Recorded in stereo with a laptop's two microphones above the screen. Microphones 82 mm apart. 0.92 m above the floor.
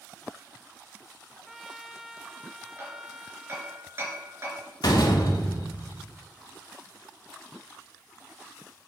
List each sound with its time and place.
1.5 s a trumpet: 5° right (ahead or behind), 0.7 m
2.8 s hammering: 30° right (ahead or behind), 3.5 m
4.8 s a door slam: 65° left (ahead or behind), 1.4 m